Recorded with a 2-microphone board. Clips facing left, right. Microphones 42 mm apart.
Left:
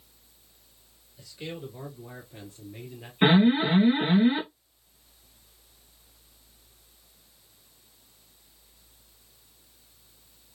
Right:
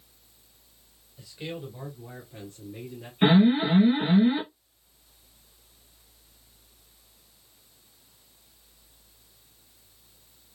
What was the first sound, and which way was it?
A man speaking, 10° right (ahead or behind).